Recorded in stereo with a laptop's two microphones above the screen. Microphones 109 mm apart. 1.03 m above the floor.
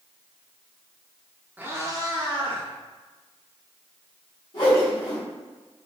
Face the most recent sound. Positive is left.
turn(degrees=45)  # may be behind; listen again after turning